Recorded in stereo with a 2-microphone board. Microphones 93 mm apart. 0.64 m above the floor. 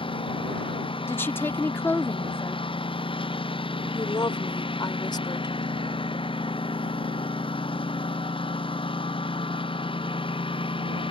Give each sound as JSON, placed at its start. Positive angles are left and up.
{"t": 0.0, "sound": "a lawn mower", "side_deg": 70}
{"t": 1.1, "sound": "a woman speaking", "side_deg": 25}
{"t": 3.9, "sound": "a woman speaking", "side_deg": 50}